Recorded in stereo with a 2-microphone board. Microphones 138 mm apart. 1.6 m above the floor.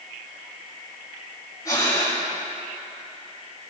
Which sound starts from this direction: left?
Breathing, at 1.6 s.